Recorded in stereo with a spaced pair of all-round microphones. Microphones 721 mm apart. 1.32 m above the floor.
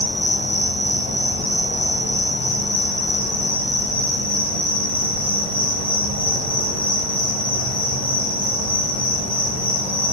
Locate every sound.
0.0 s an insect: 10° right (ahead or behind), 0.8 m